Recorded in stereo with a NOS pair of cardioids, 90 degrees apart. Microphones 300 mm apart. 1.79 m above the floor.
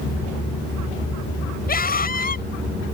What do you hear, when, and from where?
1.7 s a scream: 30° left